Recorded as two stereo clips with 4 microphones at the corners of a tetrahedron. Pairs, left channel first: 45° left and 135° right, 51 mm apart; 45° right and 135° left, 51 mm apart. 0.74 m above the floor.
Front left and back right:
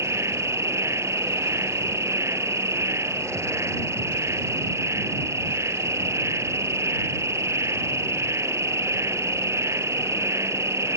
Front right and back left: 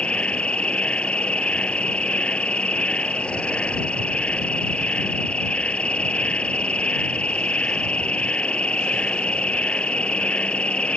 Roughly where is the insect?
Behind right.